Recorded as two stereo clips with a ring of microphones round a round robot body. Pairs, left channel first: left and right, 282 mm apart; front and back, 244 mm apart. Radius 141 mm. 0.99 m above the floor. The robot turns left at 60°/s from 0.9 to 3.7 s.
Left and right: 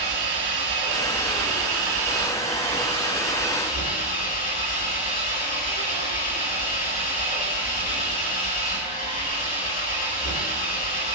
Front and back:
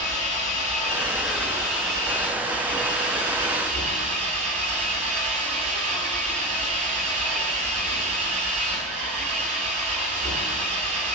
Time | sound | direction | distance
0.0 | an engine running | 40° right | 9.5 m